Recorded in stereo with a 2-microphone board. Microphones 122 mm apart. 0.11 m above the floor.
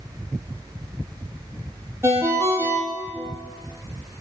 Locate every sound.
2.0 s a ringtone: 20° right (ahead or behind), 1.4 m